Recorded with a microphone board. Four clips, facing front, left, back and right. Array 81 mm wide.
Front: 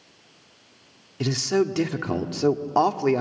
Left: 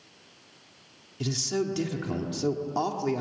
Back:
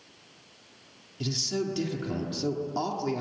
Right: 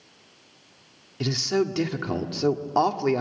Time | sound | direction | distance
1.2 | a man speaking | 30° right | 1.7 m